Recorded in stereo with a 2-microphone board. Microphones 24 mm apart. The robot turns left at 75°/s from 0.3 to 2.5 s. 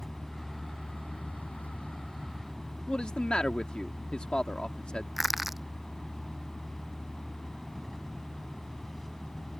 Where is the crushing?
5° right (ahead or behind).